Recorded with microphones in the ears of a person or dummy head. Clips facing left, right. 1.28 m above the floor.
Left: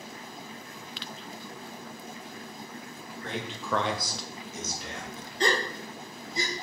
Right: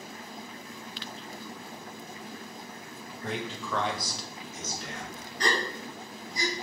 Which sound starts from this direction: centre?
A man speaking, at 3.2 s.